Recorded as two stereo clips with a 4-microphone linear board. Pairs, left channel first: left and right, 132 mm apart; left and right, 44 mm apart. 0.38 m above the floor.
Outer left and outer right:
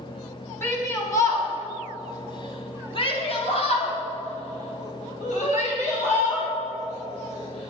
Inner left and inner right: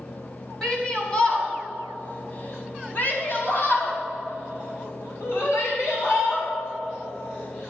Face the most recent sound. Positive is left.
turn(degrees=55)  # may be behind; listen again after turning